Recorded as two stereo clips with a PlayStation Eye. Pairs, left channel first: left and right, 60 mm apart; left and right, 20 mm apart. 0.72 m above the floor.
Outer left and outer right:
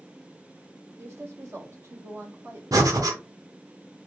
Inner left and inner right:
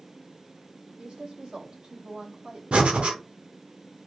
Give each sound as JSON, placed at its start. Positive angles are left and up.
{"t": 1.0, "sound": "a woman speaking", "side_deg": -50, "distance_m": 1.4}
{"t": 2.7, "sound": "breathing", "side_deg": -85, "distance_m": 0.8}